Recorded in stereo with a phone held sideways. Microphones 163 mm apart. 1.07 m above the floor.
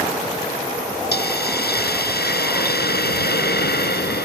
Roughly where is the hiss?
Left.